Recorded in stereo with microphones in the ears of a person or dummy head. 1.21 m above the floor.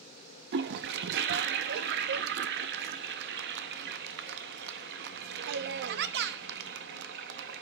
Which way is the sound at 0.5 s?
60° right (ahead or behind).